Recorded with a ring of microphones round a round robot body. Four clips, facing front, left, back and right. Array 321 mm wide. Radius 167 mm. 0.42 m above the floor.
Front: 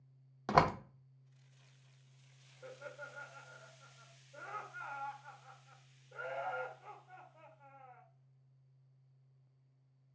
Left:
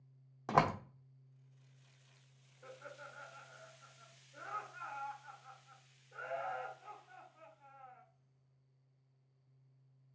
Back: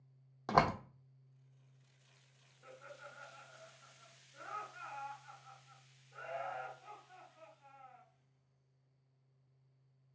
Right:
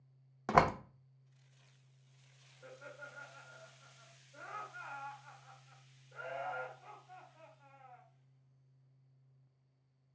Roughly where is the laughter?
Ahead.